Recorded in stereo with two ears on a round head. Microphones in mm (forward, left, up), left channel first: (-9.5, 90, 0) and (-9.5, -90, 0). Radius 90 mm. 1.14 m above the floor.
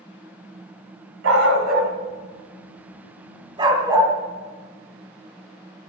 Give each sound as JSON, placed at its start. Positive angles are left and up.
{"t": 1.2, "sound": "a dog barking", "side_deg": -70, "distance_m": 2.0}